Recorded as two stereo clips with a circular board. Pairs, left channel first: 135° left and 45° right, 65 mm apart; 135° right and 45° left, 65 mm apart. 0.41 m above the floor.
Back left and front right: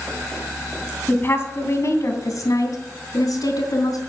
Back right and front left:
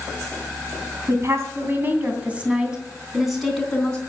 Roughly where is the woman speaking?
Left.